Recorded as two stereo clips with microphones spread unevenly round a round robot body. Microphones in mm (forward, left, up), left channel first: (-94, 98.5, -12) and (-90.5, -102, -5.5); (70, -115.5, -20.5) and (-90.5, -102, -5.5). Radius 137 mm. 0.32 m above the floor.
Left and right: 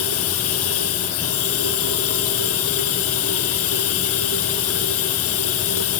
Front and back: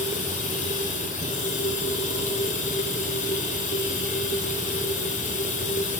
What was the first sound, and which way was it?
Running water, 55° left.